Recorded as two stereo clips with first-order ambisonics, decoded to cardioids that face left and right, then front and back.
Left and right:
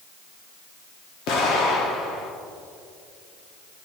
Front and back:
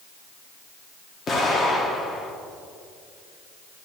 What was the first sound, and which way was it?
An explosion, 70° left.